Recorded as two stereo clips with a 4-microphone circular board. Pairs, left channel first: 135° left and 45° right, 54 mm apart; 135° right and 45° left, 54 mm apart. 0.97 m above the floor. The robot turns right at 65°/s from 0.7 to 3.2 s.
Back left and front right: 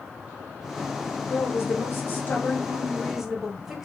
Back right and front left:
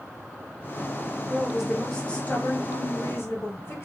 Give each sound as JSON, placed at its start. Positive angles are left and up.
{"t": 1.2, "sound": "a woman speaking", "azimuth_deg": 105, "distance_m": 0.9}